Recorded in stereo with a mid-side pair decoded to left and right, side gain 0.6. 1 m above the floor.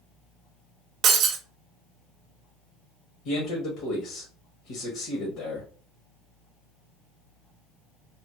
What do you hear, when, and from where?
1.0 s breaking glass: 55° right, 0.7 m
3.2 s a man speaking: 65° left, 1.4 m